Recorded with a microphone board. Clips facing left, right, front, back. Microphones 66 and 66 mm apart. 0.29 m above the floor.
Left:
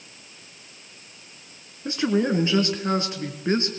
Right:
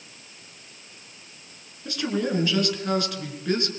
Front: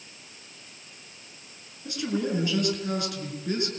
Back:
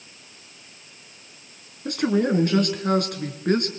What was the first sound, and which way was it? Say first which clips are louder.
A man speaking: left 4 dB, back 7 dB; 150° left.